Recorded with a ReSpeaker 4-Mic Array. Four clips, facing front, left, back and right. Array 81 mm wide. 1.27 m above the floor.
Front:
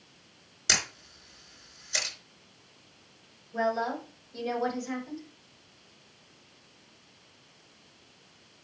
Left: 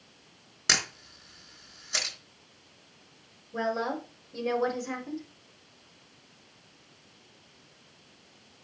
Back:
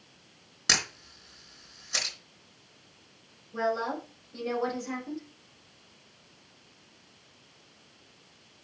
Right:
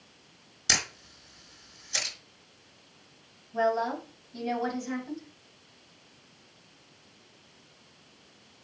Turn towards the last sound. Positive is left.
turn(degrees=105)